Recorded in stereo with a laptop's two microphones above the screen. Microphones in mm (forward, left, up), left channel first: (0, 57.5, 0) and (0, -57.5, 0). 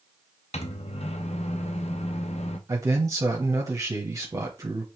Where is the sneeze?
No sneeze in this recording.